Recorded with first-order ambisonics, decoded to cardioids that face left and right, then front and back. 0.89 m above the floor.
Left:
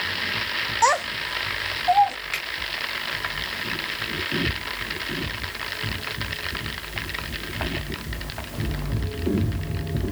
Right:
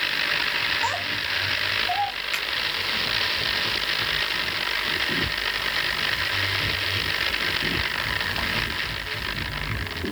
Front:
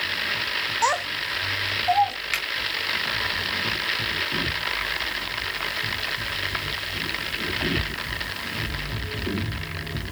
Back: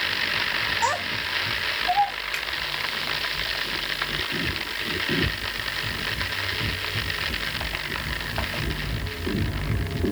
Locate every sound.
0.8 s a child speaking: 75° left, 0.6 m
2.3 s a finger snap: 5° left, 1.7 m